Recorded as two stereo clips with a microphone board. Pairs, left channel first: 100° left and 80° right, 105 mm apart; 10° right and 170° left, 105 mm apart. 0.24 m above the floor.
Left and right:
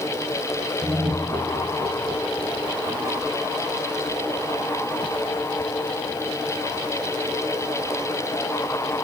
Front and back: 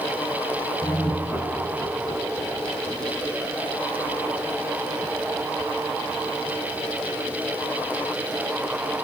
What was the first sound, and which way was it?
Laughter, 65° right.